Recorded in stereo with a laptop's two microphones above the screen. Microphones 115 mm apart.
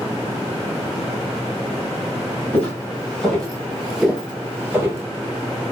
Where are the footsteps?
15° left (ahead or behind), 1.4 m; by 5.0 s 20° right (ahead or behind), 1.1 m.